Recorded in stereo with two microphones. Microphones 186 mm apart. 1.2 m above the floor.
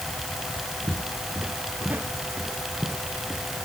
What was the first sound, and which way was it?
Footsteps, 10° right (ahead or behind).